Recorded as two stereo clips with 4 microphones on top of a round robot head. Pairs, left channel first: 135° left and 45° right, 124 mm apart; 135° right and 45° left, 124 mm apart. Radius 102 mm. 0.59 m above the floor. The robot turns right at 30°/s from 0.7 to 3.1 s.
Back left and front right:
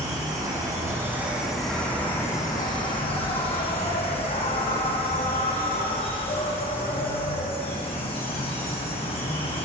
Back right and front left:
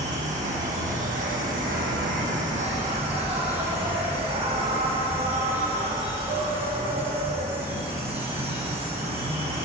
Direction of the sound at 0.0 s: 20° left.